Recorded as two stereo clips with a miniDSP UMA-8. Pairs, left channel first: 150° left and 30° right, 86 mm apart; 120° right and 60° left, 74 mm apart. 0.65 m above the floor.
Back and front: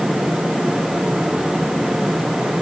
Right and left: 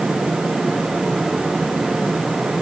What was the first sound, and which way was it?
Only background noise.